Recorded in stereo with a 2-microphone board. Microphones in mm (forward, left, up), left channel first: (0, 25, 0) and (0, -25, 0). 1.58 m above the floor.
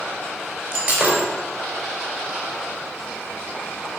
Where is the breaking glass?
35° right (ahead or behind), 4 m.